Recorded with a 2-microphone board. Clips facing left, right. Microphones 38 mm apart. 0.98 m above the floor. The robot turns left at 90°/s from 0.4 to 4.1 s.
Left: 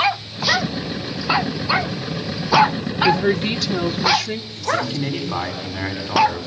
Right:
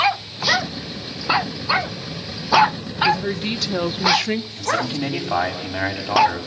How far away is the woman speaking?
About 0.8 m.